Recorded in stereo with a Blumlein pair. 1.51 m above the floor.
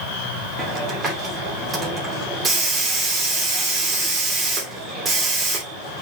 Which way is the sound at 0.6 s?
20° right.